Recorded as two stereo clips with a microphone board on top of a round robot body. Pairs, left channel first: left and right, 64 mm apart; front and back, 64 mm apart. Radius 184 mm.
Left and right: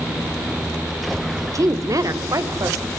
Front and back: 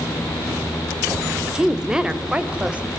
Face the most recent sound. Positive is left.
turn(degrees=-115)